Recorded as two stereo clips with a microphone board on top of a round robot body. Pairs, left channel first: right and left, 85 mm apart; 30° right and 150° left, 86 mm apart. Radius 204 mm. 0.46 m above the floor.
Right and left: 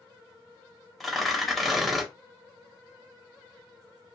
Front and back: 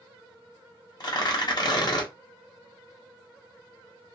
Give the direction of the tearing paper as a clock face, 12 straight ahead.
12 o'clock.